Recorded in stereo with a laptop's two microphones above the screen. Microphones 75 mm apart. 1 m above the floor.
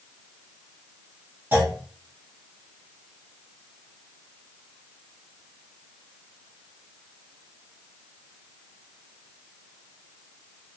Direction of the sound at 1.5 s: 30° right (ahead or behind).